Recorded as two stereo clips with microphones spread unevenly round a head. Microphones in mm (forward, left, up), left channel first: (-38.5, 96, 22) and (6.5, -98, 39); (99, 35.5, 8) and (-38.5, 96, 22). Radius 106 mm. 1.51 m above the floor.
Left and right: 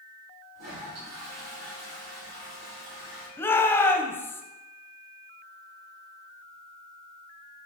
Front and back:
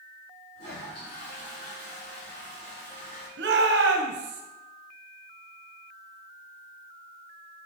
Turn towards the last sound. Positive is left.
turn(degrees=180)